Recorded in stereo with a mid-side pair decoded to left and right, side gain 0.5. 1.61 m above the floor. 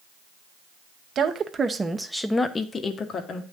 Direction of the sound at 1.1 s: 50° right.